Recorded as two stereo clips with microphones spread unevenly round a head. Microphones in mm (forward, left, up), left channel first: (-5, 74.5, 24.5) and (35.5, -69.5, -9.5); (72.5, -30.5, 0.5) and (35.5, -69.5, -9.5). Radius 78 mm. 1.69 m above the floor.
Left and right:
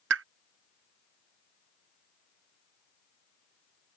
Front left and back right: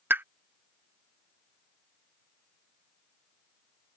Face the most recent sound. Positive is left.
turn(degrees=-75)